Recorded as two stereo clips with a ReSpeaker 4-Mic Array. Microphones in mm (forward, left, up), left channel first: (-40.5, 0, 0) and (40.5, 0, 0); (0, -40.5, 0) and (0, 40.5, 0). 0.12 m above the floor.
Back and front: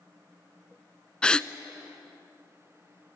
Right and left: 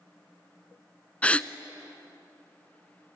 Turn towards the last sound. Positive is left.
turn(degrees=-125)